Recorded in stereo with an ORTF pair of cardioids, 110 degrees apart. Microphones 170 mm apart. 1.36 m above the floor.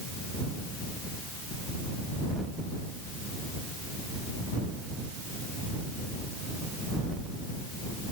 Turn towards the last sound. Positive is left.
No sound to turn to.